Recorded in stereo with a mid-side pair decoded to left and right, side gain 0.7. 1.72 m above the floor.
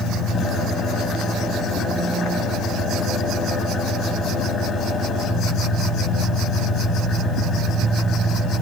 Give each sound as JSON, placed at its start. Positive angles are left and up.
{"t": 0.0, "sound": "an engine running", "azimuth_deg": 35, "distance_m": 2.5}